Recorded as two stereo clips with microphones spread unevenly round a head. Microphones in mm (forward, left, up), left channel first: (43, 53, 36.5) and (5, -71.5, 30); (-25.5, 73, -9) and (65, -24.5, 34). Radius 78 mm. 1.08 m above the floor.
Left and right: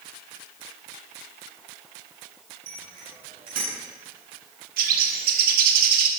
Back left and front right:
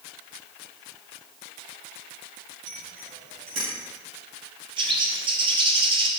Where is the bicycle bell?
95° right, 7 m; by 3.7 s 100° right, 8.5 m.